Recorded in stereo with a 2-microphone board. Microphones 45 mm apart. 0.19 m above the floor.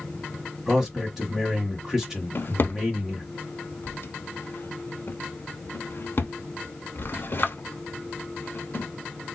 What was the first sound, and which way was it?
A man speaking, 10° right (ahead or behind).